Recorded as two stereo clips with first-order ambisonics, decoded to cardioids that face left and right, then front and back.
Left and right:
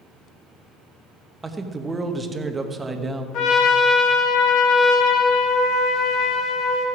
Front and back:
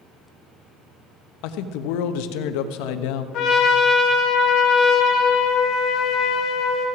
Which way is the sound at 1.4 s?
10° right.